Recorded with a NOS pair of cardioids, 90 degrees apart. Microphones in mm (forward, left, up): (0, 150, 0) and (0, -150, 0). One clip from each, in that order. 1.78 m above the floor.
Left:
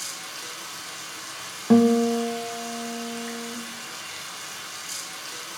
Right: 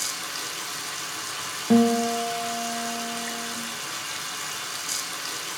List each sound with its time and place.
0.0 s running water: 40° right, 1.1 m
1.7 s a guitar: 10° left, 1.0 m